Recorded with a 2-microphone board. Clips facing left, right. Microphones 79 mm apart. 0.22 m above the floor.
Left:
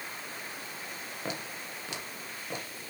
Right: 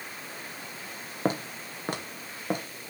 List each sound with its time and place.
1.2 s footsteps: 40° right (ahead or behind), 1.3 m; by 2.9 s 50° right (ahead or behind), 2.5 m